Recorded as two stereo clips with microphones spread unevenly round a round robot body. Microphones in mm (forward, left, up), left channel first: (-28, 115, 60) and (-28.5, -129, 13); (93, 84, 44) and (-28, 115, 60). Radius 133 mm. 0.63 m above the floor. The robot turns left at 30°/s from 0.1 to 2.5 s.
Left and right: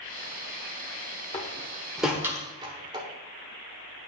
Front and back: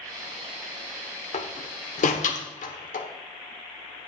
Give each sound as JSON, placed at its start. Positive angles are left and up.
{"t": 1.3, "sound": "a door slam", "azimuth_deg": 15, "distance_m": 1.1}